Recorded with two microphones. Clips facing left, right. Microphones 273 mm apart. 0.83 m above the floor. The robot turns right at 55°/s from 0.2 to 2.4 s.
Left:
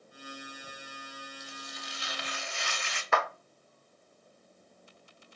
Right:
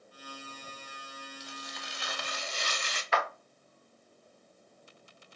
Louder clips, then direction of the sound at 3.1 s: Left 2 dB; 55° left (ahead or behind).